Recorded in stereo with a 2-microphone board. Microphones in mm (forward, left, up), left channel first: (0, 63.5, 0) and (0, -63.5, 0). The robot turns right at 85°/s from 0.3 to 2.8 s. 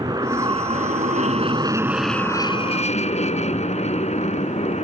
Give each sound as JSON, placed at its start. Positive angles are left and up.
{"t": 0.0, "sound": "an aircraft", "azimuth_deg": -150}